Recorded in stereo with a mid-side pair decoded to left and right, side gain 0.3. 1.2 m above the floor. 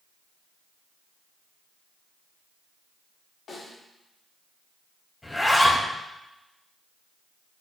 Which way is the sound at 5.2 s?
20° left.